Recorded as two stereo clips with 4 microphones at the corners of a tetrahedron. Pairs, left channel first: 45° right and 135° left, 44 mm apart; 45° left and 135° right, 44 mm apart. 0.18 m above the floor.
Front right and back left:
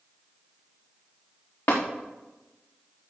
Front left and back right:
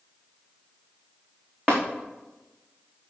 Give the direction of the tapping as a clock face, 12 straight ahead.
1 o'clock.